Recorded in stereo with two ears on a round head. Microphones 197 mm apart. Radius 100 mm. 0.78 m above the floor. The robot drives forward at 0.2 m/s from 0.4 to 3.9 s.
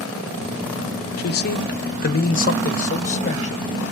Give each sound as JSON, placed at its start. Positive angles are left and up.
{"t": 1.2, "sound": "a man speaking", "side_deg": 45, "distance_m": 0.7}